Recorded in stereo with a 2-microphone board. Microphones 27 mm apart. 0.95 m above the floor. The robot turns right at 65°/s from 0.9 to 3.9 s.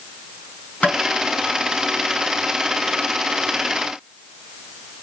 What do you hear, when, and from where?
0.8 s tapping: 70° left (ahead or behind), 7 m; by 1.0 s 65° left (ahead or behind), 7 m